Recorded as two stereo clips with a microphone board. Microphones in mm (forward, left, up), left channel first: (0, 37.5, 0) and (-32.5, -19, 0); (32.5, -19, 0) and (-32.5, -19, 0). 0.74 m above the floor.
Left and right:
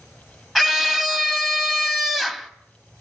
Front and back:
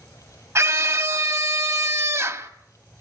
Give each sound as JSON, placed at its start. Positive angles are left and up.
{"t": 0.6, "sound": "a scream", "azimuth_deg": 155, "distance_m": 1.7}